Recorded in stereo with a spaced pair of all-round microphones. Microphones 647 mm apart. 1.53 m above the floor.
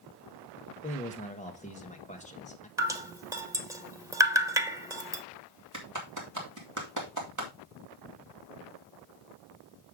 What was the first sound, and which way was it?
A man speaking, 10° left (ahead or behind).